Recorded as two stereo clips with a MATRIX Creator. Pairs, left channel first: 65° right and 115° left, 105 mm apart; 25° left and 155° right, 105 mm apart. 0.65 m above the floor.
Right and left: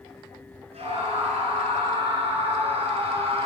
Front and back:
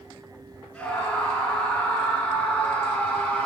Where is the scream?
100° left, 9.5 m.